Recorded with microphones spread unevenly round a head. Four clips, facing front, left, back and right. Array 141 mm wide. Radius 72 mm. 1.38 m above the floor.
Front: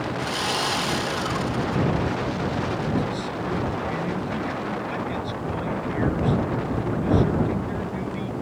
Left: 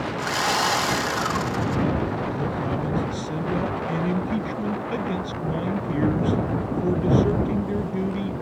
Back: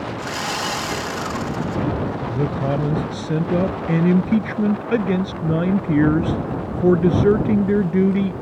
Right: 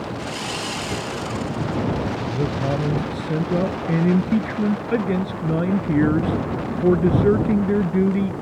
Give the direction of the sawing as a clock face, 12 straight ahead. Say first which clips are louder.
Left 5 dB, back 1 dB; 9 o'clock.